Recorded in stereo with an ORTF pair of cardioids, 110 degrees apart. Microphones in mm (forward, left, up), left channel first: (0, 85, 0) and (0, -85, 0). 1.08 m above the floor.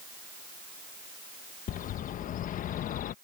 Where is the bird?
50° left.